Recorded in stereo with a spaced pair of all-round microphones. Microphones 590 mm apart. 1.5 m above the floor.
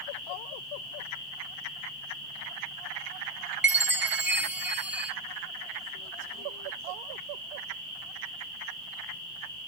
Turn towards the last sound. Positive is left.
turn(degrees=-20)  # may be behind; listen again after turning